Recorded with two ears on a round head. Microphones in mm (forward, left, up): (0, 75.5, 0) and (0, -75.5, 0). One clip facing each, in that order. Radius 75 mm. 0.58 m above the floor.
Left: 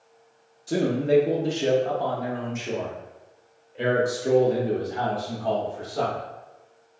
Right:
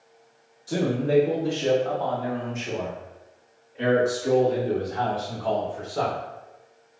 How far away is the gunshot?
No gunshot in this recording.